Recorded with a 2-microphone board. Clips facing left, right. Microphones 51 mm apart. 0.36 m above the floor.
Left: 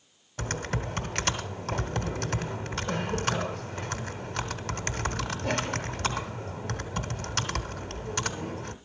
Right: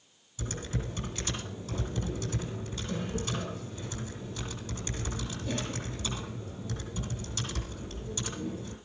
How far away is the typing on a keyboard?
About 1.7 m.